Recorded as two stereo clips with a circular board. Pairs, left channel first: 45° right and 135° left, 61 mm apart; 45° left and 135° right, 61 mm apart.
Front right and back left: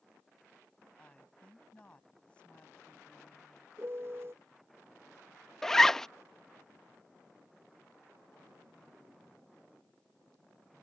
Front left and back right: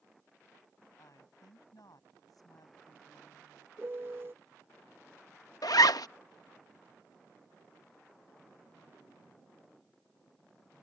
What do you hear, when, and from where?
1.0 s a woman speaking: 30° left
3.8 s a piano: straight behind
5.6 s a zipper: 40° left